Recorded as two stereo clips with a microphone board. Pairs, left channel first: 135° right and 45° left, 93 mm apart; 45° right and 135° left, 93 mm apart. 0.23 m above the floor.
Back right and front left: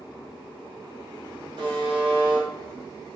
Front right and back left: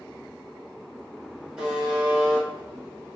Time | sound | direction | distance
1.6 | a buzzer | 55° left | 1.4 m